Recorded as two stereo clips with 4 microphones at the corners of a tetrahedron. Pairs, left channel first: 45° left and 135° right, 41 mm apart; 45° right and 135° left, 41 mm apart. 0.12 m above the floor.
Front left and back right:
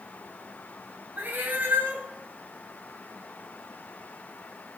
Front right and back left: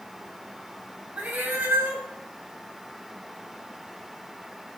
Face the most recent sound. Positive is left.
turn(degrees=180)